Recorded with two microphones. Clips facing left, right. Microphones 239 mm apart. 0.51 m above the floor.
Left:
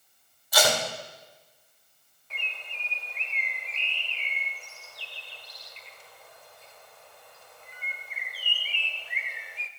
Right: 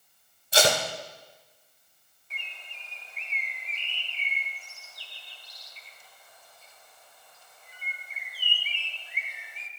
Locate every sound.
0.5 s tape being pulled: 30° right (ahead or behind), 2 m
2.3 s a bird: 75° left (ahead or behind), 0.9 m